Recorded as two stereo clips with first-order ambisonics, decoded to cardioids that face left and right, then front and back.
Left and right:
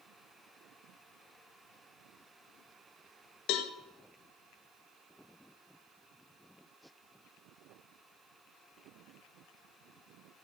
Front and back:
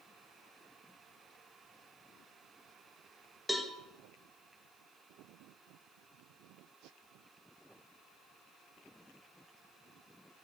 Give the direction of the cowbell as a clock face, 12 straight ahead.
9 o'clock.